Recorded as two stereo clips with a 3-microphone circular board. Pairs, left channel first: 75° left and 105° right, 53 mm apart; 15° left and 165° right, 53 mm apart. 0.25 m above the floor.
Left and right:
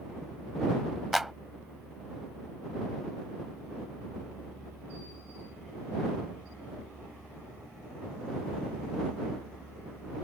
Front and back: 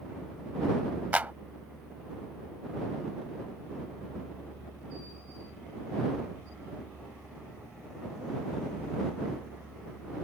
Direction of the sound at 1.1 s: 170° left.